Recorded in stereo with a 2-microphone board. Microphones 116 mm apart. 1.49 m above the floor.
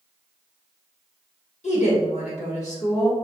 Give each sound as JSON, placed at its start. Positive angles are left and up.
{"t": 1.6, "sound": "a woman speaking", "side_deg": 85, "distance_m": 1.8}